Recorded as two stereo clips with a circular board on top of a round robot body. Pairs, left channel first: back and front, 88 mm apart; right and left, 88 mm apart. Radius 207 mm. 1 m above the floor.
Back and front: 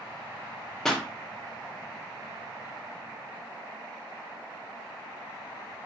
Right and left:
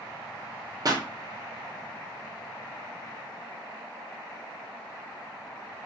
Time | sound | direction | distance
0.8 | a pop | 95° left | 0.8 m